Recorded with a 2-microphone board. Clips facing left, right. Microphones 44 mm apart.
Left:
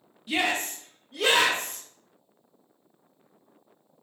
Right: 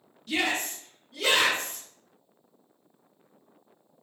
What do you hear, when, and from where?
0.3 s a shout: 15° left (ahead or behind), 0.6 m; by 1.8 s 60° left (ahead or behind), 1.1 m